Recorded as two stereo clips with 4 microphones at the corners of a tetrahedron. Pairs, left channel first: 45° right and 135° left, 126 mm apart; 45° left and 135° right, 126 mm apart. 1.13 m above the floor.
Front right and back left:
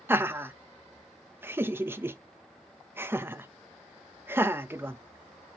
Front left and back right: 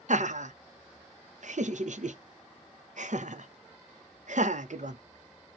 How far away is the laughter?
About 0.6 m.